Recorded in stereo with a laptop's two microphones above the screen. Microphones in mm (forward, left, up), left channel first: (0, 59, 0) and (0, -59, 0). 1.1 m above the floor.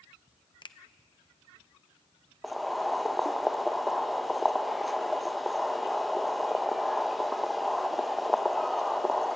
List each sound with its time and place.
0.6 s a finger snap: 40° left (ahead or behind), 0.6 m
2.4 s boiling: centre (ahead or behind), 0.6 m